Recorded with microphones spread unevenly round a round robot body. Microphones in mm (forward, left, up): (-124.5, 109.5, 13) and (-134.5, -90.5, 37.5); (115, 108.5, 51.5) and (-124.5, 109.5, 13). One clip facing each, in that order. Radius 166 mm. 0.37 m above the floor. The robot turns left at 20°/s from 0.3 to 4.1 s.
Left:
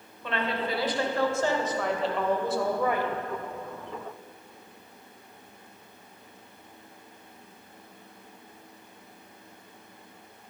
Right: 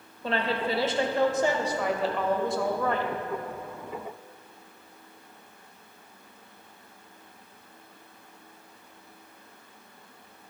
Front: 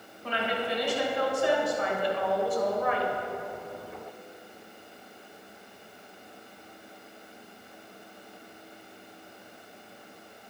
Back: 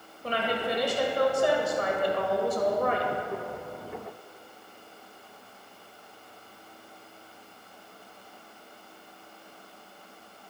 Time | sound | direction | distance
0.2 | a woman speaking | 145° right | 1.7 m